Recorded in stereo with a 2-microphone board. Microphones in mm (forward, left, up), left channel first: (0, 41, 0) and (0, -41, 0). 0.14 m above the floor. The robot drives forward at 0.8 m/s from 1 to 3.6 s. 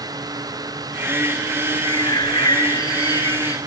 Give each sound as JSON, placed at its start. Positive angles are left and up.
{"t": 1.8, "sound": "a bird", "side_deg": 60}